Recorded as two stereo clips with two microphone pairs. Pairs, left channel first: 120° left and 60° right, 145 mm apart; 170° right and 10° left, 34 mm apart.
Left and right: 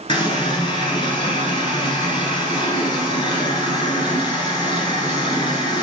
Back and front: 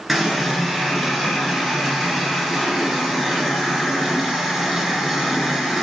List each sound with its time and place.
0.1 s a running tap: 95° left, 1.1 m